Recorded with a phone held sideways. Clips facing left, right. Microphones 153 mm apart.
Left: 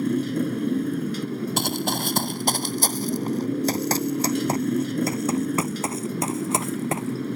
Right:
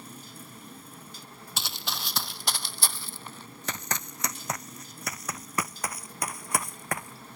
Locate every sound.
0.0 s a motorcycle: 65° left (ahead or behind)
1.6 s running footsteps: 50° left (ahead or behind); by 7.4 s 20° left (ahead or behind)